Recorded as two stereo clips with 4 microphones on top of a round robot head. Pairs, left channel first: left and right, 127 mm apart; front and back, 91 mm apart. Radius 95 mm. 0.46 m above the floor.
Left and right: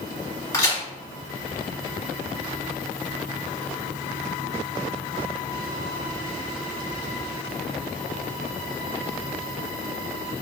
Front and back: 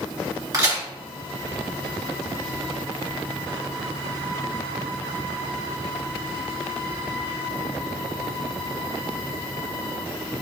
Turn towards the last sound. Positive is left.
turn(degrees=145)